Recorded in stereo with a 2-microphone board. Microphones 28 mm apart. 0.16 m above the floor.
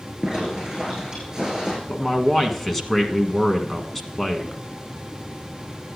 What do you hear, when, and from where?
0.2 s a zipper: 25° right (ahead or behind), 6 m
1.9 s a man speaking: 10° left (ahead or behind), 1.3 m